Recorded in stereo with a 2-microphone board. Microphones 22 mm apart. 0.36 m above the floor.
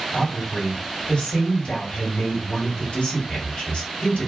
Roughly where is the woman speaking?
Left.